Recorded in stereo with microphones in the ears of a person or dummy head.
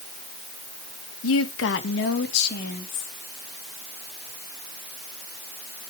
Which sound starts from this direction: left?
A woman speaking, at 1.2 s.